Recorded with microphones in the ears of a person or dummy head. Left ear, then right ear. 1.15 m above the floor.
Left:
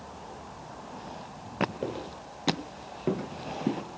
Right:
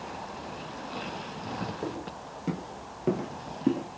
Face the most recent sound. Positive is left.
turn(degrees=-20)  # may be behind; listen again after turning